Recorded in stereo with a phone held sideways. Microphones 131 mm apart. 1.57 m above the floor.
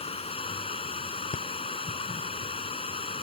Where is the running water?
45° left (ahead or behind).